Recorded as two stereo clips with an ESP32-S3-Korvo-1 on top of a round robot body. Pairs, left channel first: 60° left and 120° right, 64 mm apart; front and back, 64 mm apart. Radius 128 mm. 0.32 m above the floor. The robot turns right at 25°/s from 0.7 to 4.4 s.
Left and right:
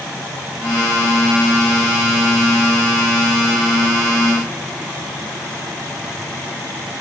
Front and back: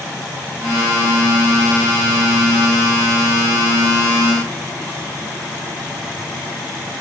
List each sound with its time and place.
Only background noise.